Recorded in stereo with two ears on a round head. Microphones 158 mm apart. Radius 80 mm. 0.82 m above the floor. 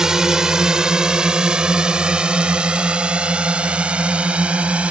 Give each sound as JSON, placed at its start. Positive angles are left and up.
{"t": 0.0, "sound": "a drone", "side_deg": -5}